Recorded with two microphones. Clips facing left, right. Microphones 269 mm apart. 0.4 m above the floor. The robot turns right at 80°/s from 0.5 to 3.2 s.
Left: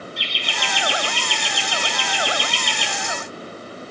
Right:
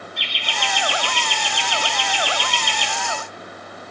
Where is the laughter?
90° right, 3.5 m; by 2.9 s 100° left, 3.5 m.